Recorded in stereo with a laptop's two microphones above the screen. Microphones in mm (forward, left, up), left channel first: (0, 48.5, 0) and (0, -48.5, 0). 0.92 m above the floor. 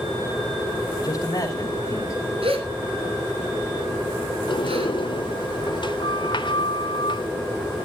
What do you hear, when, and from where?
1.0 s a man speaking: 40° left (ahead or behind), 4.5 m; by 2.3 s 35° left (ahead or behind), 5 m
2.4 s a gasp: 75° right (ahead or behind), 3 m
4.5 s a sliding door: 55° left (ahead or behind), 1.0 m